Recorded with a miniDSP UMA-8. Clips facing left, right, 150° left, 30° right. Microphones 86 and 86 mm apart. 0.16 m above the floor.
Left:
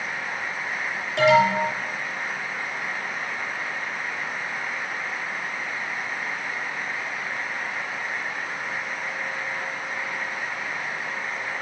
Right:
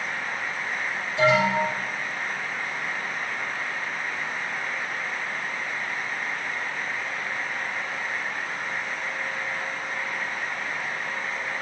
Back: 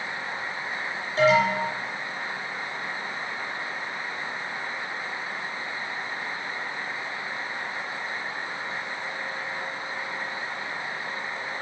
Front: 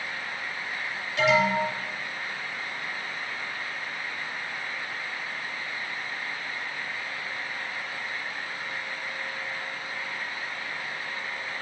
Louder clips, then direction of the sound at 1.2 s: Left 3 dB, back 2 dB; 95° left.